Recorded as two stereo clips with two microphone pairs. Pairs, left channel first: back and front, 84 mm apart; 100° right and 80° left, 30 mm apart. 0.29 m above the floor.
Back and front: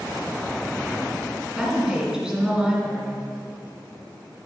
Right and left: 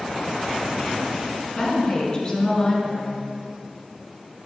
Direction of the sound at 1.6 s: 65° right.